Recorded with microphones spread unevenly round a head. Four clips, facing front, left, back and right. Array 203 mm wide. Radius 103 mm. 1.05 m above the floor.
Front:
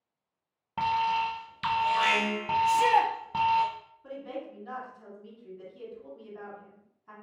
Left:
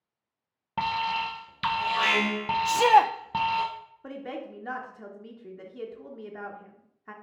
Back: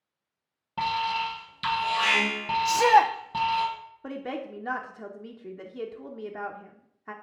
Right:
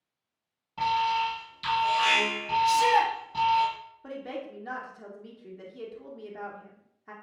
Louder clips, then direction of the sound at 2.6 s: Left 4 dB, back 4 dB; 115° left.